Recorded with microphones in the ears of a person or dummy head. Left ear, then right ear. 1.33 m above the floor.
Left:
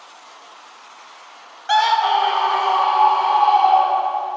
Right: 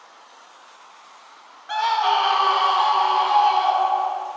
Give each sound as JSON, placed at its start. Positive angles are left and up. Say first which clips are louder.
{"t": 1.7, "sound": "a scream", "louder": "left 4 dB", "side_deg": 25, "distance_m": 0.5}